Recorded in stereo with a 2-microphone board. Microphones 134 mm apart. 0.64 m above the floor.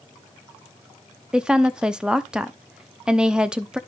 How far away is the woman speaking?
About 0.7 m.